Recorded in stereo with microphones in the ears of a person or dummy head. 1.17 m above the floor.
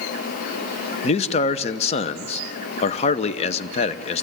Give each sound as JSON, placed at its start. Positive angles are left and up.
{"t": 1.0, "sound": "a man speaking", "side_deg": 35, "distance_m": 0.6}